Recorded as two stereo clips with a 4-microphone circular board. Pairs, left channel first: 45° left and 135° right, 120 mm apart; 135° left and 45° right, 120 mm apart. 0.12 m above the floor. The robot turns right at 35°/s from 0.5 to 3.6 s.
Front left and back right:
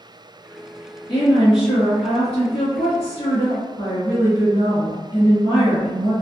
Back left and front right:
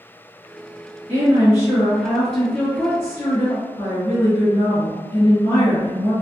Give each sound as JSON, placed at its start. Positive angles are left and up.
{"t": 1.1, "sound": "a woman speaking", "azimuth_deg": 15, "distance_m": 1.5}